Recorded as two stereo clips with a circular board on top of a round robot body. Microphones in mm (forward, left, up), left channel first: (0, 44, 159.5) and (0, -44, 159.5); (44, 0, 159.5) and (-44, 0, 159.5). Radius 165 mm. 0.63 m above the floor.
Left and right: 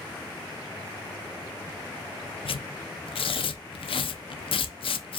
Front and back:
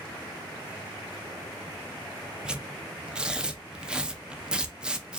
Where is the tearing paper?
100° left, 0.6 m.